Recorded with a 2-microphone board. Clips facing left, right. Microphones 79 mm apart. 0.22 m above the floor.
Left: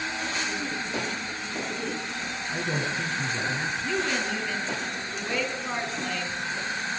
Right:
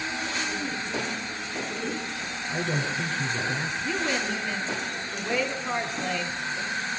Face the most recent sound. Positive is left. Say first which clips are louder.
# even
turn(degrees=-5)  # may be behind; listen again after turning